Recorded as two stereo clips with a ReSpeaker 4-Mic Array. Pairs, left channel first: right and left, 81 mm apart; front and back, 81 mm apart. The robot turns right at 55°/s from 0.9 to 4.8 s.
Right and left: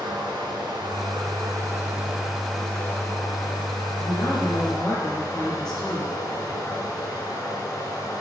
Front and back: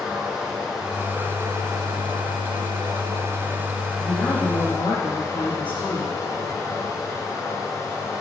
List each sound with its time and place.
0.0 s running water: 95° left, 3.5 m; by 8.2 s 50° right, 3.5 m
4.0 s a woman speaking: 55° right, 6.5 m; by 6.2 s 10° right, 6.5 m